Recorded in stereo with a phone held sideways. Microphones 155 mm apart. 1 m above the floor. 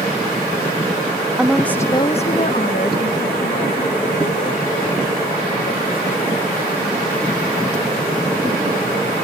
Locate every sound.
1.4 s a woman speaking: 5° right (ahead or behind); by 8.6 s 65° left (ahead or behind)